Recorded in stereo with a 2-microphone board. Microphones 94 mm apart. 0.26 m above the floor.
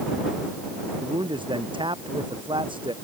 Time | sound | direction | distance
1.0 | a man speaking | 65° right (ahead or behind) | ?